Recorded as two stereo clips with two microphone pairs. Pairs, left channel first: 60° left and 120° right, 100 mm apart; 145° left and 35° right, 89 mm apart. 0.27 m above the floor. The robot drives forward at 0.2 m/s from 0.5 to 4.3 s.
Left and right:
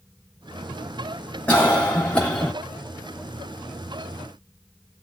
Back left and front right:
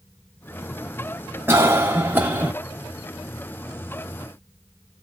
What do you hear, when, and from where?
1.5 s a cough: straight ahead, 1.1 m